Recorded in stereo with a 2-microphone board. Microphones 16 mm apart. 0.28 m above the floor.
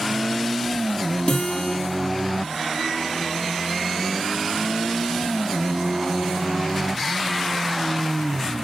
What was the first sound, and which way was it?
A guitar, 80° left.